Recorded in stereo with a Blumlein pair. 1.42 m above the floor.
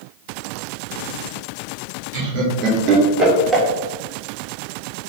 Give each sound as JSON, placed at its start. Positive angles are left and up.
{"t": 2.1, "sound": "laughter", "azimuth_deg": -45, "distance_m": 1.2}